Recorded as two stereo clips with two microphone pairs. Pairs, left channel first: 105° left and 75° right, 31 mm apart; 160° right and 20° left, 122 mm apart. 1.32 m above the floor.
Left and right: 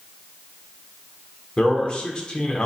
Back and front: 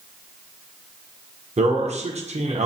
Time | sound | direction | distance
1.6 | a man speaking | 45° left | 0.7 m